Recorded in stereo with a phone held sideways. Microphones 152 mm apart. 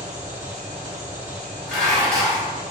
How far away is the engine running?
About 1.4 m.